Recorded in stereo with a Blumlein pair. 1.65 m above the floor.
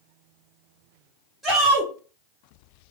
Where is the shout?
5° right, 2 m.